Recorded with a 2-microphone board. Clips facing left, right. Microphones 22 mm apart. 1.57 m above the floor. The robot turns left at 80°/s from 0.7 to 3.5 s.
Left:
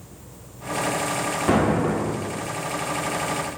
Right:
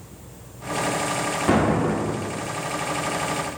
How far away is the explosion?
About 1.3 m.